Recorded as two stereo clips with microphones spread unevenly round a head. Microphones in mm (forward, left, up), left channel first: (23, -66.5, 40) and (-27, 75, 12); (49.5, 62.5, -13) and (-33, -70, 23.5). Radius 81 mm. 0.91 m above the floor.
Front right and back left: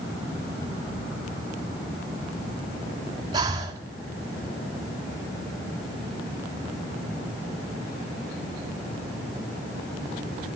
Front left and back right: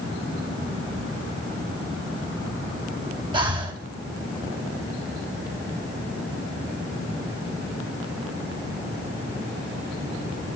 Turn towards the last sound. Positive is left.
turn(degrees=175)